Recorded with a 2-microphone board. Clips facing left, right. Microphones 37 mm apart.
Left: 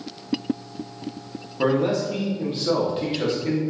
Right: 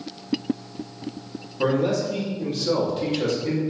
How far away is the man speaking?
About 1.3 m.